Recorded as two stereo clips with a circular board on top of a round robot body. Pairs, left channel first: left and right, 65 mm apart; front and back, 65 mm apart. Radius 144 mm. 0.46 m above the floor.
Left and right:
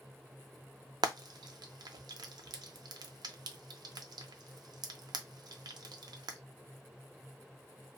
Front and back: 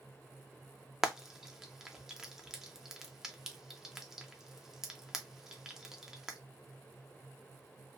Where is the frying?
95° right, 0.6 m.